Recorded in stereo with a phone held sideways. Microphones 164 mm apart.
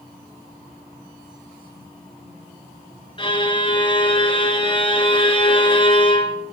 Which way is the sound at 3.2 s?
30° left (ahead or behind).